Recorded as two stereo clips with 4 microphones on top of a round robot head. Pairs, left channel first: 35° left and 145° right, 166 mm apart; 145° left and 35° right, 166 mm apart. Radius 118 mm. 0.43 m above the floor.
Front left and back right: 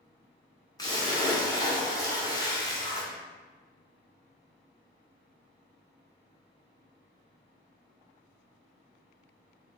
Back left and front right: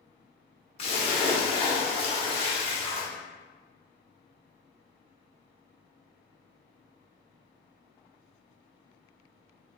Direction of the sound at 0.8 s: 100° left.